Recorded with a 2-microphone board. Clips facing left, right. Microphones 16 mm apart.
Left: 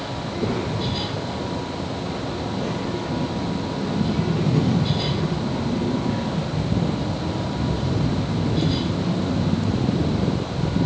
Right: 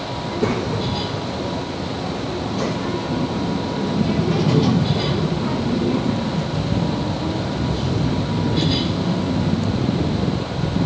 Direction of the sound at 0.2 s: 70° right (ahead or behind).